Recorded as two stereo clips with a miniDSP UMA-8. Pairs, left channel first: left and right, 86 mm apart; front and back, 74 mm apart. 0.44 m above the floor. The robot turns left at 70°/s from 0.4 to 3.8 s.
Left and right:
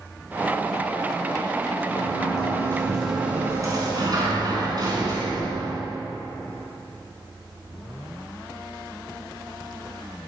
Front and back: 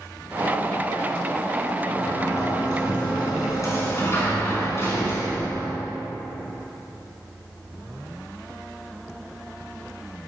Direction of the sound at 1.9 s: 80° left.